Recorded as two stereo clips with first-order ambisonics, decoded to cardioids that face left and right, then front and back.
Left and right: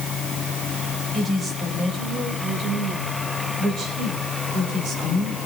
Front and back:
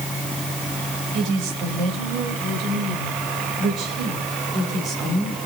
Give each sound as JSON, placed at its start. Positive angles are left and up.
{"t": 1.1, "sound": "a woman speaking", "azimuth_deg": -160, "distance_m": 4.5}